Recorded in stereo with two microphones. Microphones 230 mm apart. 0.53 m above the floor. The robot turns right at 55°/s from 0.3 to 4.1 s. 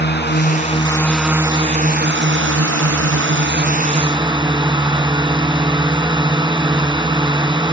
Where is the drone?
130° left; by 7.7 s 20° right.